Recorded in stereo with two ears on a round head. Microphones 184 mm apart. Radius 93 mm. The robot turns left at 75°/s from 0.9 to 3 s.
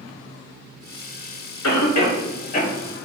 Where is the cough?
75° left (ahead or behind), 0.7 m; by 3.1 s centre (ahead or behind), 0.7 m.